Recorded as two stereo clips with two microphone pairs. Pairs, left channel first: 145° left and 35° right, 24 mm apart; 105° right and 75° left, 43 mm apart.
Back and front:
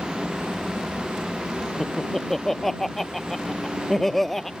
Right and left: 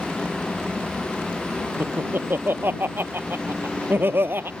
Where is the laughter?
70° left.